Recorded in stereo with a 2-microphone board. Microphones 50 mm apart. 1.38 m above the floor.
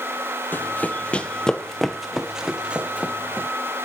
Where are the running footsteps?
40° left (ahead or behind), 1.8 m; by 3.5 s 35° right (ahead or behind), 2 m.